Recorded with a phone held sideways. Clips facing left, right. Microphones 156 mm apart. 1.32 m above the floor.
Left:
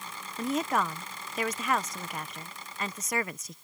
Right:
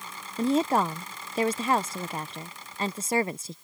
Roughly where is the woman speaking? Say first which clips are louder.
Right 5 dB; right.